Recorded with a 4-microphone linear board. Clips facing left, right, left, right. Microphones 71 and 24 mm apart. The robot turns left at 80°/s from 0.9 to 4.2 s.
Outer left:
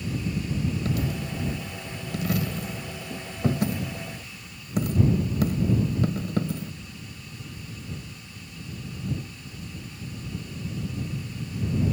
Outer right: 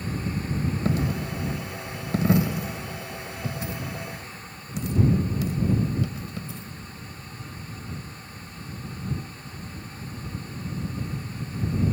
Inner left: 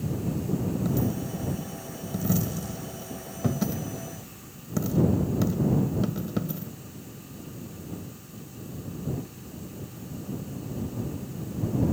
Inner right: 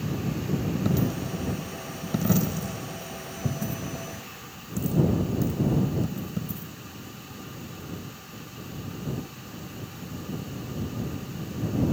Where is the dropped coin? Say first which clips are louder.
Outer right 2 dB, inner right 1 dB; 30° right (ahead or behind); by 6.7 s 55° left (ahead or behind).